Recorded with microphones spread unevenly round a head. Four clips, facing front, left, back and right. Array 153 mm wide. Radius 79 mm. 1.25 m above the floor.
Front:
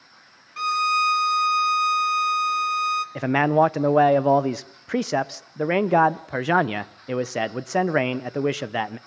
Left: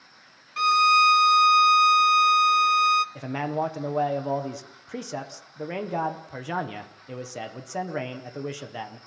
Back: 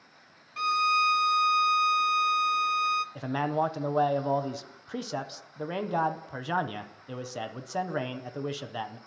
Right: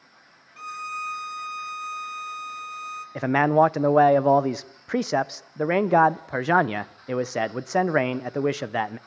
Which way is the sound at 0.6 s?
80° left.